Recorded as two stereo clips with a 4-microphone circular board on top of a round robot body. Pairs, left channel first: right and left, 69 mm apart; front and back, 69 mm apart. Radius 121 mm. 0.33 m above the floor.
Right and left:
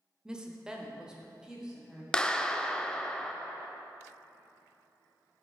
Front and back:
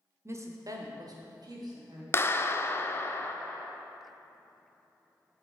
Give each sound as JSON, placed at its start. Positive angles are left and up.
{"t": 0.2, "sound": "a woman speaking", "azimuth_deg": 165, "distance_m": 1.0}
{"t": 2.1, "sound": "a clap", "azimuth_deg": -20, "distance_m": 0.7}